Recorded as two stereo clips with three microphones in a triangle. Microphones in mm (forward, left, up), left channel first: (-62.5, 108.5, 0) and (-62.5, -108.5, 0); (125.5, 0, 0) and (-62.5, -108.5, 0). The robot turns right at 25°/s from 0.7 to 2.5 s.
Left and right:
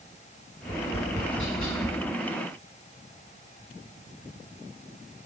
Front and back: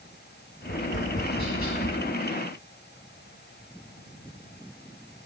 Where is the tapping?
50° left, 3 m; by 2.0 s 80° left, 3 m.